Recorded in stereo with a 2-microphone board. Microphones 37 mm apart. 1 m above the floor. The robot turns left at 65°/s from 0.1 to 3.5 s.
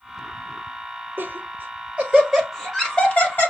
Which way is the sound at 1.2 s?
80° right.